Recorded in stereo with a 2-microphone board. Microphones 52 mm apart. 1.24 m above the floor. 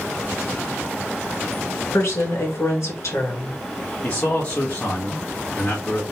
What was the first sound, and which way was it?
A woman speaking, 70° left (ahead or behind).